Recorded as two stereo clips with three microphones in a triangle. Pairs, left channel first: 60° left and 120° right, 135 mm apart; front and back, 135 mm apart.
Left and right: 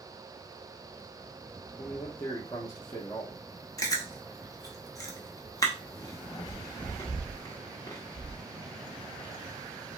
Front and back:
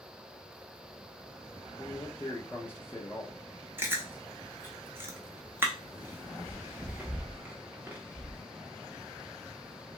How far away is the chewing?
About 0.7 m.